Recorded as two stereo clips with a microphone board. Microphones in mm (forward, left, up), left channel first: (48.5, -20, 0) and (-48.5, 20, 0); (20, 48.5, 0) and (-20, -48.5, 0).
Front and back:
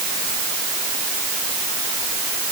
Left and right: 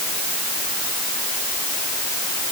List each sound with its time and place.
Only background noise.